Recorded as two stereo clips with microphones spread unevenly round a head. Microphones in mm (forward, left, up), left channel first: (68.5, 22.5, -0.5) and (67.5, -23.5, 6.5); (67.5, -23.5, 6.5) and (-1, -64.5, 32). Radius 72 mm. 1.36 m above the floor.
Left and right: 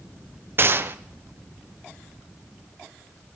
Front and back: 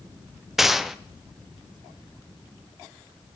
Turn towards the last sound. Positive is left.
turn(degrees=-55)